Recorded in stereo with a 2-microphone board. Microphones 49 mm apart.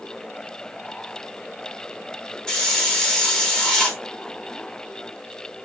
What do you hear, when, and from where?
2.5 s a hiss: 15° left (ahead or behind), 1.6 m